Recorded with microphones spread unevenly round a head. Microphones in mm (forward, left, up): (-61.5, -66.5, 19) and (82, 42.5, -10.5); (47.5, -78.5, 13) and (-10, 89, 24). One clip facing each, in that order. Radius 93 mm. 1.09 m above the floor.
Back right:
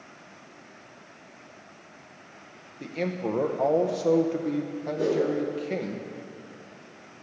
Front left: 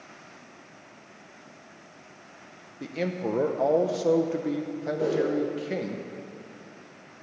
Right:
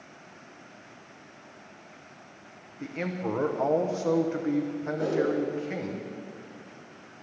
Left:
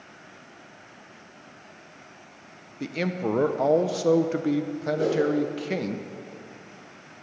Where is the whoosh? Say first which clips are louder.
Back right 1 dB, left 3 dB; 160° left, 2.5 m.